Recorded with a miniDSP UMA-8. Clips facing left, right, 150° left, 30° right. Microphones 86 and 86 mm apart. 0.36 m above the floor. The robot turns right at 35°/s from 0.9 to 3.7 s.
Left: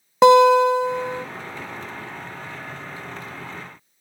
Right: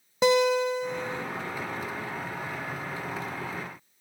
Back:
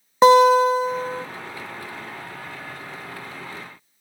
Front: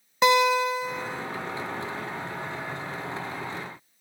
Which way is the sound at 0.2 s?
95° left.